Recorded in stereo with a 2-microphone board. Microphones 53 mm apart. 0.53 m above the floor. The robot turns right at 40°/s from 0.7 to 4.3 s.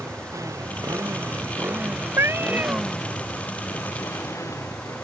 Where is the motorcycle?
80° right; by 5.0 s 70° left (ahead or behind).